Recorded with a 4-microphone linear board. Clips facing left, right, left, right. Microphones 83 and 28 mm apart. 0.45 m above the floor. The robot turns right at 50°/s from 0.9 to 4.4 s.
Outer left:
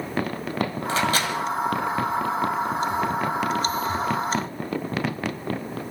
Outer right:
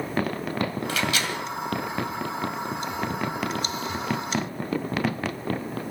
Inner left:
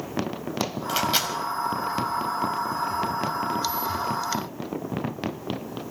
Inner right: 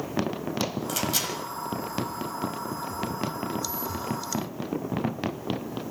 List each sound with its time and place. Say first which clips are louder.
0.9 s a microwave: outer left 4 dB, inner left 4 dB; 30° left (ahead or behind), 2 m; by 1.3 s 45° left (ahead or behind), 2 m